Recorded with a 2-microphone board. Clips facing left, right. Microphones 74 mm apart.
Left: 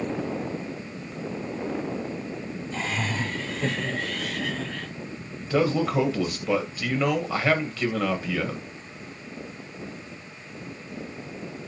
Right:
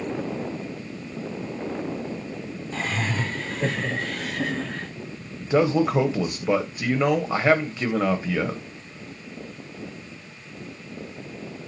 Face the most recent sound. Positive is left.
turn(degrees=-20)  # may be behind; listen again after turning